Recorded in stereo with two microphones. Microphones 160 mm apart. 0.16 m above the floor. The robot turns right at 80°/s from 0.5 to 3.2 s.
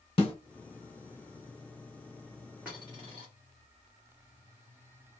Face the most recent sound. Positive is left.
turn(degrees=-125)